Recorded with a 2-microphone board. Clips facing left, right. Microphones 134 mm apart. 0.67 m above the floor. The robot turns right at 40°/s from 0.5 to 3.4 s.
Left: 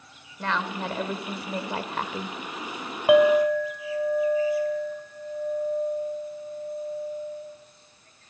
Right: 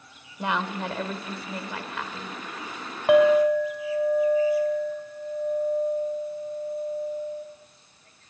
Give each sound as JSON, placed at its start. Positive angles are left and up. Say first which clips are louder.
{"t": 0.4, "sound": "a woman speaking", "louder": "right 1 dB", "azimuth_deg": -15, "distance_m": 2.0}
{"t": 3.1, "sound": "a clink", "louder": "even", "side_deg": 5, "distance_m": 1.8}